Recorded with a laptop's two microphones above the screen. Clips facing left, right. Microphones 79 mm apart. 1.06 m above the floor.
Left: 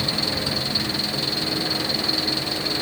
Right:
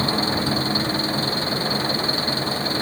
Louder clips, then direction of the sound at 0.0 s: Right 5 dB; 35° right (ahead or behind).